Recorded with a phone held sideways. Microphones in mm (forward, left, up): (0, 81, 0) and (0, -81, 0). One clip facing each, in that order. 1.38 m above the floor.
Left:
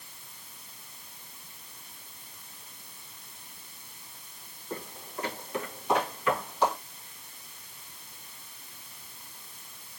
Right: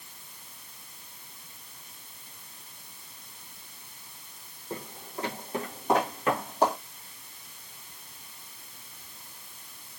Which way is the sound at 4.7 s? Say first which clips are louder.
Even; 20° right (ahead or behind).